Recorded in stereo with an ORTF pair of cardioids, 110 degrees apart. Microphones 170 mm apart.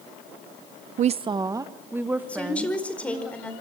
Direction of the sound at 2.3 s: 5° left.